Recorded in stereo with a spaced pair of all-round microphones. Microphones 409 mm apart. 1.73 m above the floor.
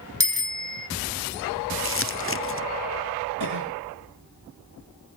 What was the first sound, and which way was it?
A bicycle bell, 60° left (ahead or behind).